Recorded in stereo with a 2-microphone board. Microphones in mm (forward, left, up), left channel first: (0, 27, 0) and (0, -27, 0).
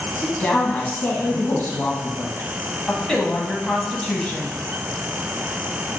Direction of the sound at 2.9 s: 10° left (ahead or behind).